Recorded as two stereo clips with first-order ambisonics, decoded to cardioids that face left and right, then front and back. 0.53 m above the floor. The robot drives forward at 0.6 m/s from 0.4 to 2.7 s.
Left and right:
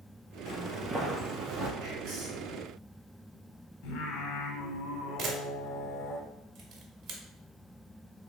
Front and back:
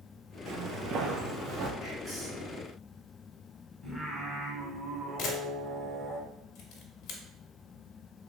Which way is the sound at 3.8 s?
105° left.